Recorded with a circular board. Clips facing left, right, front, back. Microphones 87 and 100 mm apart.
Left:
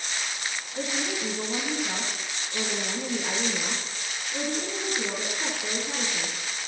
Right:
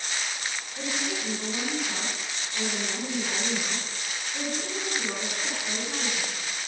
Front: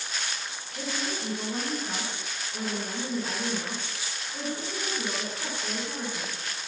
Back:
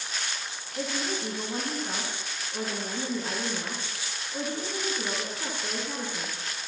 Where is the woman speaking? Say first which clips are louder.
Left 2 dB, back 2 dB; 105° left, 2.5 m.